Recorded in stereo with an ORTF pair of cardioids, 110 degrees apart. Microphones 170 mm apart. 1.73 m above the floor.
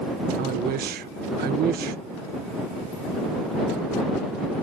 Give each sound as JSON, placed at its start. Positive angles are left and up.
{"t": 0.4, "sound": "a man speaking", "azimuth_deg": -65}